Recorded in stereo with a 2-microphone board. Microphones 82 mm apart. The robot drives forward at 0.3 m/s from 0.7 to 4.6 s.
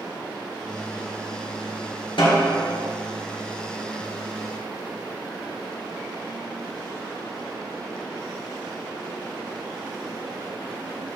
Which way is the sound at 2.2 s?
80° left.